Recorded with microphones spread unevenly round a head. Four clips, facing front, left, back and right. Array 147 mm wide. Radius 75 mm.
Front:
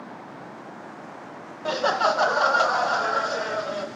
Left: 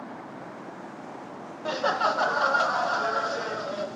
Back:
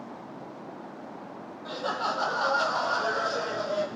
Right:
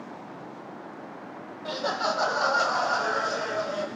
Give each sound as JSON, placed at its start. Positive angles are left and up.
{"t": 1.6, "sound": "laughter", "azimuth_deg": 10, "distance_m": 0.7}